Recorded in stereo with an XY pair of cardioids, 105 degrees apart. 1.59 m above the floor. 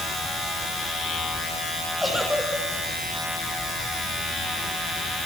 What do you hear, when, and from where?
2.0 s a giggle: straight ahead, 6 m